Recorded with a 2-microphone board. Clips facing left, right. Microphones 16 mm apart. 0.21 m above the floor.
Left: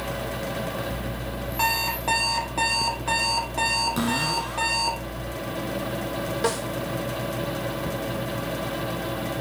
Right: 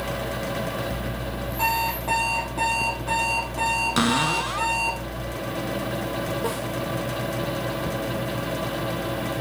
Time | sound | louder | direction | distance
1.6 | an alarm clock | even | 45° left (ahead or behind) | 3 m
4.0 | a cupboard door | right 3 dB | 45° right (ahead or behind) | 1.1 m
6.4 | a snare drum | left 2 dB | 55° left (ahead or behind) | 2.5 m